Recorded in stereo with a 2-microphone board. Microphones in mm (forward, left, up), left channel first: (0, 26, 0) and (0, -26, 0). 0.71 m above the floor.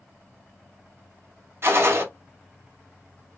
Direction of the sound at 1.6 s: 45° right (ahead or behind).